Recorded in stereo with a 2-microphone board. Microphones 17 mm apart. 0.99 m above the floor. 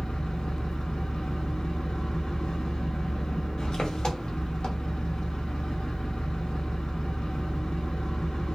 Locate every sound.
0.0 s an engine running: 50° left (ahead or behind), 0.7 m